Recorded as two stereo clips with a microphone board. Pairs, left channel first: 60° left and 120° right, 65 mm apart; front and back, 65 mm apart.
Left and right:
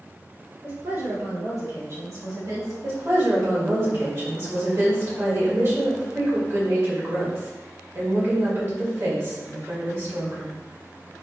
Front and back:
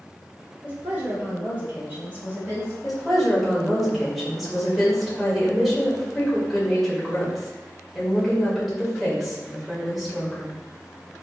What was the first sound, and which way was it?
A woman speaking, 130° right.